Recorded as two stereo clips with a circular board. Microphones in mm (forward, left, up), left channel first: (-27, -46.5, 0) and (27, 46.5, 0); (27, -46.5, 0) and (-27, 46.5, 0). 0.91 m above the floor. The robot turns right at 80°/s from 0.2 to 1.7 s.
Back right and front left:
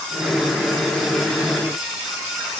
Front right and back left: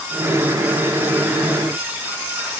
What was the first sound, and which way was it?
Only background noise.